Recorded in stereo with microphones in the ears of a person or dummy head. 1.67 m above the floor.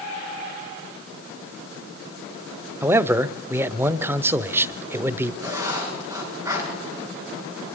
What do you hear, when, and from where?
2.8 s a man speaking: 15° right (ahead or behind), 0.9 m
5.4 s writing: 15° right (ahead or behind), 5 m